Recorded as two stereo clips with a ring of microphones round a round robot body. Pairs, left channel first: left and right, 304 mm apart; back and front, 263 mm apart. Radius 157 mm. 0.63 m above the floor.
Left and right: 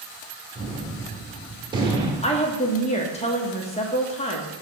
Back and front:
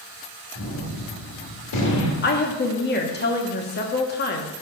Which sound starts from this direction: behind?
A gunshot, at 0.6 s.